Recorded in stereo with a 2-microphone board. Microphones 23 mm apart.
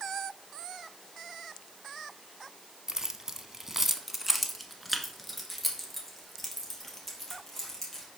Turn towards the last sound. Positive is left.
turn(degrees=10)  # may be behind; listen again after turning